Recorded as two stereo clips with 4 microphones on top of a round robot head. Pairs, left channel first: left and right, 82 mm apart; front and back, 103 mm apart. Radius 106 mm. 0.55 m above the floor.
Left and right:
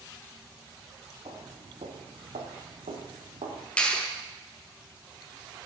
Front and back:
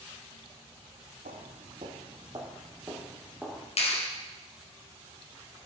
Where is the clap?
15° left, 2.5 m.